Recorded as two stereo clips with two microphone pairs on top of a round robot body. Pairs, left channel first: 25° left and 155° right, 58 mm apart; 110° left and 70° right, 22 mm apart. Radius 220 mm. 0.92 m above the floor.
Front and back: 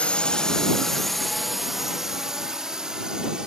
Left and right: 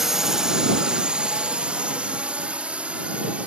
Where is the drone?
20° right; by 3.5 s 80° right.